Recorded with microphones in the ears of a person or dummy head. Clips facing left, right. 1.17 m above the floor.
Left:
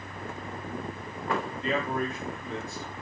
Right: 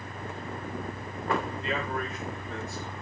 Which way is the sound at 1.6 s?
80° left.